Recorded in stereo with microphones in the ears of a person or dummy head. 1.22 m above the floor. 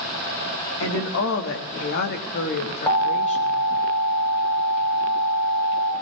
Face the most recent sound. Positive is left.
turn(degrees=15)  # may be behind; listen again after turning